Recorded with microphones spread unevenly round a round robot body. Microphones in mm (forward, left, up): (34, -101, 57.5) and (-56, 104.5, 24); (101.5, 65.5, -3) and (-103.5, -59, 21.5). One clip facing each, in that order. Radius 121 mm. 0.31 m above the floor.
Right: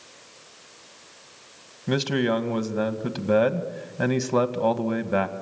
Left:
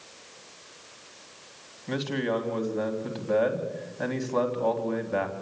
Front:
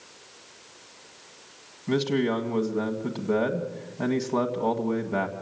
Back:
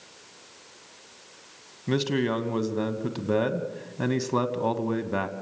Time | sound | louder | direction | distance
1.9 | a man speaking | right 5 dB, front 1 dB | 85° right | 2 m